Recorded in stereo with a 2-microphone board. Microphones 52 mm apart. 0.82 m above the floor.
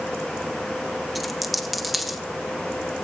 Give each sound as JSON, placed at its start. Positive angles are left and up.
{"t": 1.1, "sound": "a dropped coin", "side_deg": 0, "distance_m": 0.7}